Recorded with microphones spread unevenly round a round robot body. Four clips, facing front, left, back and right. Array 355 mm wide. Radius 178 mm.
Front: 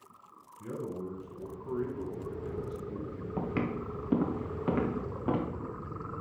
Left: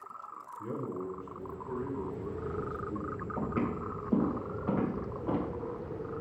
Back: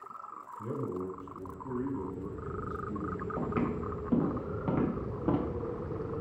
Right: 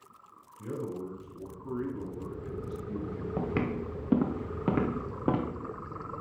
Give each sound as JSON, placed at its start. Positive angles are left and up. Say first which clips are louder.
{"t": 0.6, "sound": "a man speaking", "louder": "right 1 dB, back 2 dB", "azimuth_deg": -145, "distance_m": 3.5}
{"t": 3.4, "sound": "footsteps", "louder": "right 2 dB, even", "azimuth_deg": -75, "distance_m": 3.0}